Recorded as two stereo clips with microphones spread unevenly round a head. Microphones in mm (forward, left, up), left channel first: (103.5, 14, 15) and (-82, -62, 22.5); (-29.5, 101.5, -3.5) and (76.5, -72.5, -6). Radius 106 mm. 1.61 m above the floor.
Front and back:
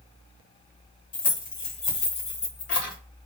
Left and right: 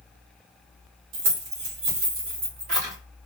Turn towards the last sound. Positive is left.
turn(degrees=-5)